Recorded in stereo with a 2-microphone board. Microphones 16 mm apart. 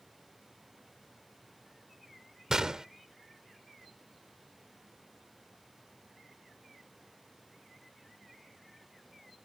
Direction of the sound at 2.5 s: 40° right (ahead or behind).